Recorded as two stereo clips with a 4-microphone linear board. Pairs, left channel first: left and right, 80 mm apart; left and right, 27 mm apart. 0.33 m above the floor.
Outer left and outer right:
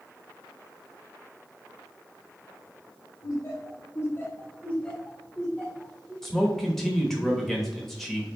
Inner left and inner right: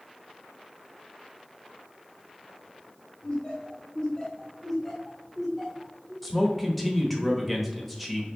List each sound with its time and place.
3.2 s laughter: 40° left (ahead or behind), 1.7 m; by 6.1 s 25° right (ahead or behind), 1.2 m
6.2 s a man speaking: 5° left (ahead or behind), 0.9 m